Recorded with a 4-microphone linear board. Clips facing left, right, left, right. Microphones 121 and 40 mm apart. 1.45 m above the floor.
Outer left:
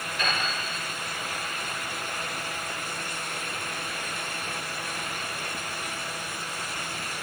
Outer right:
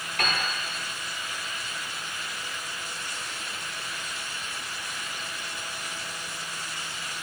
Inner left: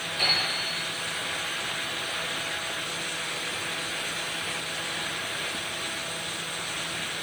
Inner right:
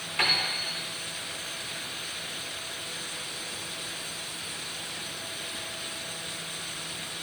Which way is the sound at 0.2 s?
65° right (ahead or behind).